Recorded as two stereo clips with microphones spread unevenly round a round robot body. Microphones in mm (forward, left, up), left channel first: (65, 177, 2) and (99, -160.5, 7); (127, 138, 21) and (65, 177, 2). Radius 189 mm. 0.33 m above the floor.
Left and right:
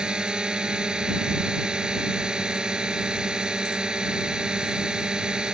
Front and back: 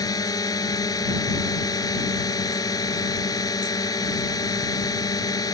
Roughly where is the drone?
Ahead.